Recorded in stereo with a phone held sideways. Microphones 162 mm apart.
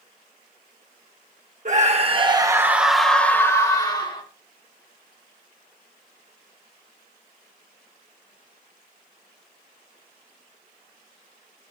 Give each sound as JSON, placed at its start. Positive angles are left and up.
{"t": 1.6, "sound": "a scream", "side_deg": -50, "distance_m": 1.4}